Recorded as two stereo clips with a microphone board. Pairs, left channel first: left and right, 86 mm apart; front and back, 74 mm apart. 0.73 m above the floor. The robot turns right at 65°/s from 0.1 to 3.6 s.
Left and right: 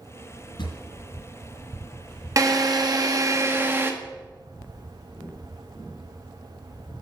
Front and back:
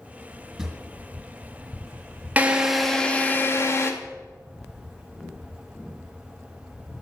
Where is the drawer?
95° left, 1.9 m; by 0.8 s 110° left, 1.9 m.